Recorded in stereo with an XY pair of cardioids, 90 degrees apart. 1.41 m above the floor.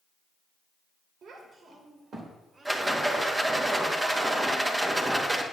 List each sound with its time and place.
1.2 s a child speaking: 65° right, 2.5 m; by 3.0 s 40° right, 3 m
2.6 s a rattle: 20° right, 2.0 m